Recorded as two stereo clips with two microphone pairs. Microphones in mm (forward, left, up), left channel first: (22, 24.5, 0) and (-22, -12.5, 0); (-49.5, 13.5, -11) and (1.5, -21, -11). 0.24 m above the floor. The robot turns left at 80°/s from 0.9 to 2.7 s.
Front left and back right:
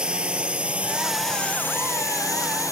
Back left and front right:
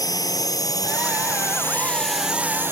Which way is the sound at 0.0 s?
145° left.